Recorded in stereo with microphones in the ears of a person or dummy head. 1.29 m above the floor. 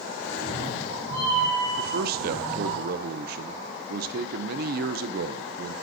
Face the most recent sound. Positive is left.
turn(degrees=-50)  # may be behind; listen again after turning